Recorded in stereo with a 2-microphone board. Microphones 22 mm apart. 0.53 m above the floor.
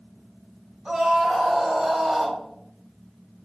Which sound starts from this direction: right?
A scream, at 0.8 s.